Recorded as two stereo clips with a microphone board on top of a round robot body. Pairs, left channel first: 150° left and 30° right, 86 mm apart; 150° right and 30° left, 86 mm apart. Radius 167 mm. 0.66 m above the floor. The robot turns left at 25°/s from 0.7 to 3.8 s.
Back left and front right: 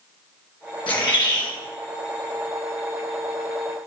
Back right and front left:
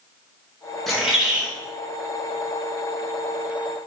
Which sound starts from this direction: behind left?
A bird, at 0.9 s.